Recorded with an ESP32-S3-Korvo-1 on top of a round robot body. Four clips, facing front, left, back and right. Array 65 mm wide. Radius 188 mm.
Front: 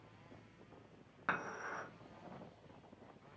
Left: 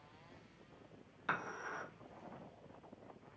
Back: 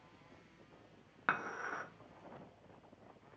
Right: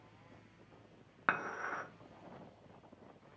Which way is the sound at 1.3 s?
110° right.